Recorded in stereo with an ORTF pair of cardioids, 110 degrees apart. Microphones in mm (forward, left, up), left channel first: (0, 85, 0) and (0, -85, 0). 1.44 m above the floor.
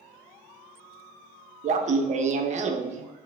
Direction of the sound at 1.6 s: 45° right.